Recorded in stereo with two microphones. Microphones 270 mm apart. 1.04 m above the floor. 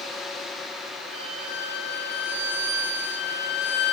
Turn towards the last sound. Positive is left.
turn(degrees=-60)  # may be behind; listen again after turning